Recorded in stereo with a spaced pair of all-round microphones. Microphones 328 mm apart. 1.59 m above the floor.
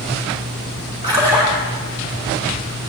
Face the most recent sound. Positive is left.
turn(degrees=-15)  # may be behind; listen again after turning